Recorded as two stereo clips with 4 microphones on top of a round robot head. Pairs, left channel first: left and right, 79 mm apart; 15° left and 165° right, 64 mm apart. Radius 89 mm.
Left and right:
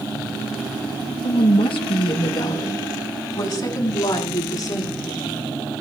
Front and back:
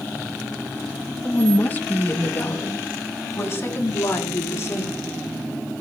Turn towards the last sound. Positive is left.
turn(degrees=55)